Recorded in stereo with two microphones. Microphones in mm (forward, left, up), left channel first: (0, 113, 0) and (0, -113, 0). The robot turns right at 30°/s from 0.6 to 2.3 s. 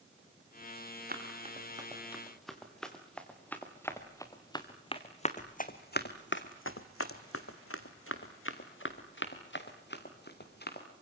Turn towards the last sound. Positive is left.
turn(degrees=45)  # may be behind; listen again after turning